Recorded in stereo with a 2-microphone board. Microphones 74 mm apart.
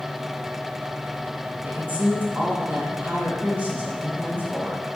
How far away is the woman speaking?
About 2.5 m.